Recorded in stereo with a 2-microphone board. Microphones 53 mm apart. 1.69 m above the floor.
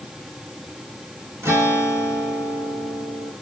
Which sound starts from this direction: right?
A guitar, at 1.4 s.